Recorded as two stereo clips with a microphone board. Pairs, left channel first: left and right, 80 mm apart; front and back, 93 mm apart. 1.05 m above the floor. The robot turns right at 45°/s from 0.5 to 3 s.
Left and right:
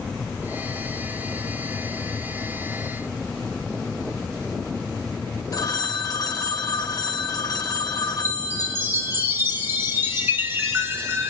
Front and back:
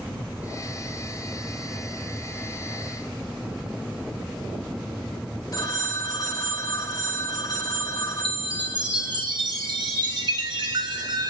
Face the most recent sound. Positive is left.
turn(degrees=-150)